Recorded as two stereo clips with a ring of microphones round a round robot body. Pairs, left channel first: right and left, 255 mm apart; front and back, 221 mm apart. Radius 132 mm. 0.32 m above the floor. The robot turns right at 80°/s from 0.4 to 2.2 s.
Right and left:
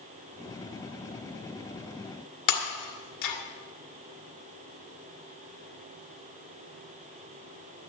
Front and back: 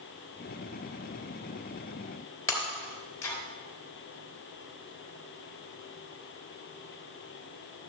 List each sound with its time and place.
2.5 s breaking glass: 80° right, 1.9 m